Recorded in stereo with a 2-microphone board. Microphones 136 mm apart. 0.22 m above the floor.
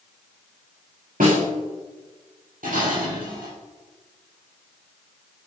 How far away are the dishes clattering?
About 3.5 m.